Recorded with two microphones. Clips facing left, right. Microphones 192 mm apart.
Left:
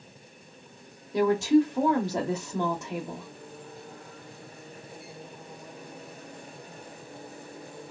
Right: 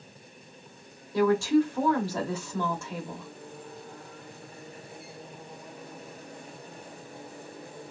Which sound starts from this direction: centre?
A woman speaking, at 1.1 s.